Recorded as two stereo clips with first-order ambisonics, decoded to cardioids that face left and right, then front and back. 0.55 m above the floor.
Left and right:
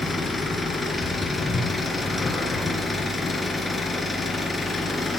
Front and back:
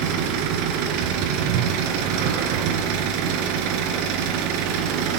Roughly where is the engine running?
Behind.